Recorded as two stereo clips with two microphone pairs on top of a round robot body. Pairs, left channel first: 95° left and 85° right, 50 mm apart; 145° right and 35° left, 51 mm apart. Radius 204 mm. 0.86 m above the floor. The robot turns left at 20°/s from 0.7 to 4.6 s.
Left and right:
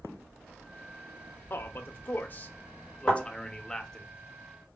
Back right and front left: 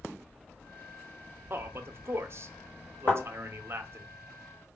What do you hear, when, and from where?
1.5 s a man speaking: 65° left, 0.9 m; by 4.1 s 10° left, 0.9 m
3.1 s a thud: 175° left, 1.2 m; by 3.2 s 170° left, 1.2 m